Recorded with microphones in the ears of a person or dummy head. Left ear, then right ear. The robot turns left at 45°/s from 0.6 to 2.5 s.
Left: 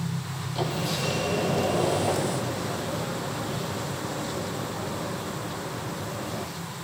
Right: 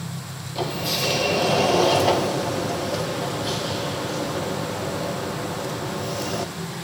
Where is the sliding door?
Straight ahead, 2 m; by 6.5 s 85° right, 2 m.